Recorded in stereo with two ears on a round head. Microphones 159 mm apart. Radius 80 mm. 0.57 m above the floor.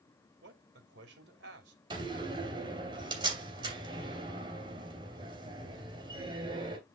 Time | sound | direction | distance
0.4 | a man speaking | 65° right (ahead or behind) | 2.5 m
1.9 | a door slam | 25° right (ahead or behind) | 2.5 m